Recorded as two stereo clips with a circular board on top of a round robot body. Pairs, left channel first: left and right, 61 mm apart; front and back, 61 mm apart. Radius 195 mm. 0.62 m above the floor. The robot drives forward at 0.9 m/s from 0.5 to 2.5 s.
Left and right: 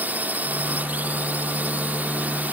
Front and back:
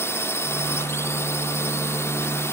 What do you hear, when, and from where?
0.0 s a drone: 35° right; by 2.5 s 30° right